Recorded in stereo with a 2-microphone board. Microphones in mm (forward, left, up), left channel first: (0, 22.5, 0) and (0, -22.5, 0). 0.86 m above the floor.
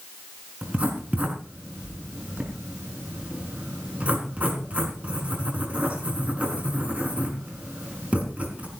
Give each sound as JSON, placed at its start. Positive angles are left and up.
{"t": 0.6, "sound": "writing", "side_deg": -30, "distance_m": 4.5}